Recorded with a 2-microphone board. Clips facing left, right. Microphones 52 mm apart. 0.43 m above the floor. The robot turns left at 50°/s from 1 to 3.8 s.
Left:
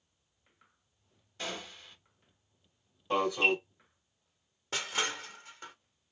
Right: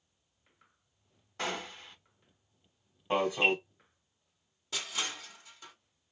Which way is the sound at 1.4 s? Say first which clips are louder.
Right 4 dB; 70° right (ahead or behind).